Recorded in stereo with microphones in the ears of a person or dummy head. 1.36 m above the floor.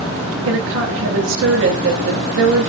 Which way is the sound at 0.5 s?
65° right (ahead or behind).